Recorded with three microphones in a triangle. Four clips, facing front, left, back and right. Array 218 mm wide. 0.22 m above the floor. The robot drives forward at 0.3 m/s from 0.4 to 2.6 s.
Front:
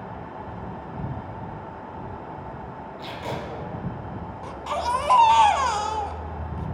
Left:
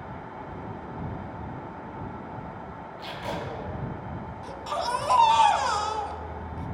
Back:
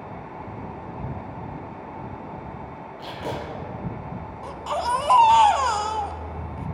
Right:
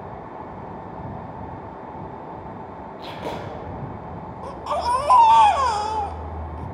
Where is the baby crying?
90° right, 0.7 m.